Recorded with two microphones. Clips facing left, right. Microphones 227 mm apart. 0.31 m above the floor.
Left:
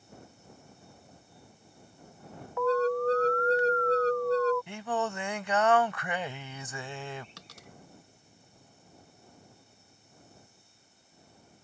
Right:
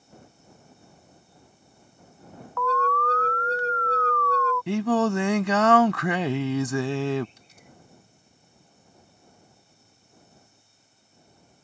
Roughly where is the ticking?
I don't hear ticking.